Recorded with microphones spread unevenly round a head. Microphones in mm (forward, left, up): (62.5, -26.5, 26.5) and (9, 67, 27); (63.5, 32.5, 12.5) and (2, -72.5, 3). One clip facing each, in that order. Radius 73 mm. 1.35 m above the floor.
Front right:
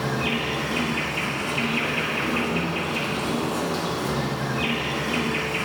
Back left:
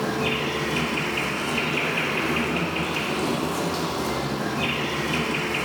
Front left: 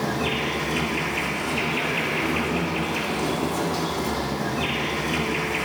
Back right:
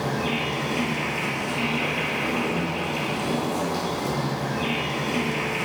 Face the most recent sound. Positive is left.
turn(degrees=70)